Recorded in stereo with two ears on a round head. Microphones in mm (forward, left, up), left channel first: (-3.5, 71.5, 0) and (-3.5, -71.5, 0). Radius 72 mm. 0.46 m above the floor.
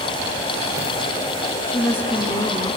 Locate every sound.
1.7 s a woman speaking: 15° left (ahead or behind), 0.9 m